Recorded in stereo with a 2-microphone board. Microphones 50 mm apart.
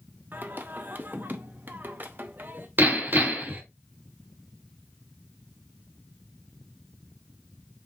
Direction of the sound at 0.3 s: 40° right (ahead or behind).